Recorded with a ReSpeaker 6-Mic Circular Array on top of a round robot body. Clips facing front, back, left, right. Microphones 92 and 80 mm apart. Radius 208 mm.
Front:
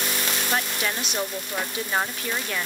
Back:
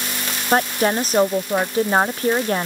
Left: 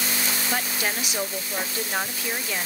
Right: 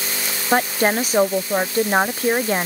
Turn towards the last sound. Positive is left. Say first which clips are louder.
# back 12 dB, right 14 dB
turn(degrees=-135)